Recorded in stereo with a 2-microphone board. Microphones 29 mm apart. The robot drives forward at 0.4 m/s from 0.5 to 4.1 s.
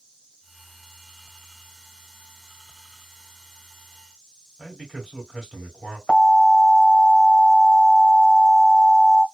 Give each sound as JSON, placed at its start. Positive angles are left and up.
{"t": 4.6, "sound": "a man speaking", "side_deg": 0, "distance_m": 2.5}
{"t": 6.1, "sound": "an alarm", "side_deg": 15, "distance_m": 1.5}